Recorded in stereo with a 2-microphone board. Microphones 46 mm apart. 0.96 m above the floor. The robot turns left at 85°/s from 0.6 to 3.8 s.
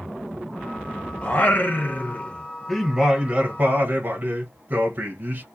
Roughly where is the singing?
Behind left.